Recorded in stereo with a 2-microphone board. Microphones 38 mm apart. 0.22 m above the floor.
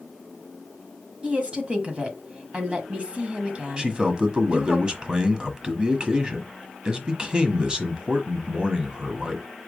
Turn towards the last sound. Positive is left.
turn(degrees=-20)  # may be behind; listen again after turning